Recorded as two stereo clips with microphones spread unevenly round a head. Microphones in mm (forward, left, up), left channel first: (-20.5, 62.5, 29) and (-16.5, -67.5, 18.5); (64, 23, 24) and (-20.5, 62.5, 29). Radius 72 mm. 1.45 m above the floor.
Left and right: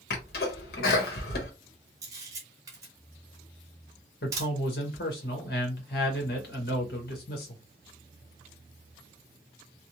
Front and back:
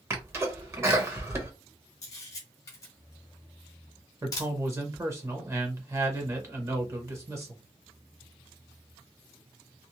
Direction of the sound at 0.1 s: 95° left.